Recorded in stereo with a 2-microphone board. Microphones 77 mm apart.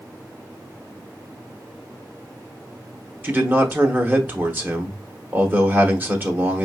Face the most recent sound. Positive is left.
turn(degrees=-30)  # may be behind; listen again after turning